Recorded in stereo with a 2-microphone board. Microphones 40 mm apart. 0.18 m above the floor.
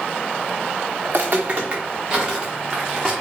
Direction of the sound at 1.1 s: 50° right (ahead or behind).